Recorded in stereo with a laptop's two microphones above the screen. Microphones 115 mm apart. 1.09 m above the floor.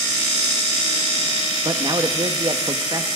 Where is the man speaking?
40° right (ahead or behind), 1.3 m.